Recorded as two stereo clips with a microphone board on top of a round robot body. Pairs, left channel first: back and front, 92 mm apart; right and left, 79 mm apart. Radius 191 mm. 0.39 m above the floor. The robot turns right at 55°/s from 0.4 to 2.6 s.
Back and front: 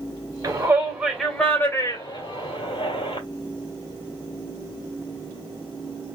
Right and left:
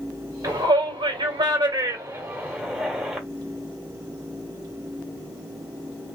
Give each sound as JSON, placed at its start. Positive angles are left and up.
{"t": 0.4, "sound": "a shout", "azimuth_deg": 50, "distance_m": 2.5}